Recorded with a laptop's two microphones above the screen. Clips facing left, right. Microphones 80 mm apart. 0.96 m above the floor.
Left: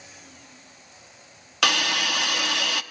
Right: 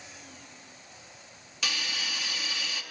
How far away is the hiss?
About 1.1 m.